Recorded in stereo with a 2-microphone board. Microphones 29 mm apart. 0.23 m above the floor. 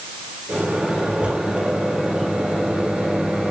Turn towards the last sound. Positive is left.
turn(degrees=-55)  # may be behind; listen again after turning